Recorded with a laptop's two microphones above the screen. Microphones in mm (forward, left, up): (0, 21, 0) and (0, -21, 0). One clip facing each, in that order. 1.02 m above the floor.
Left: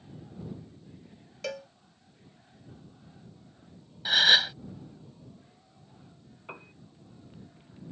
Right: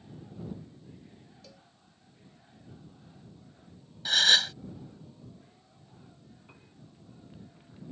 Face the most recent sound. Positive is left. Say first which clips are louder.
# left 11 dB
turn(degrees=55)  # may be behind; listen again after turning